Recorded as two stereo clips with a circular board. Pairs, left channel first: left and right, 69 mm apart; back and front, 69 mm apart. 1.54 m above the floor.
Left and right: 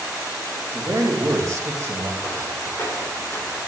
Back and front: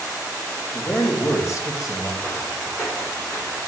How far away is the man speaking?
About 2 m.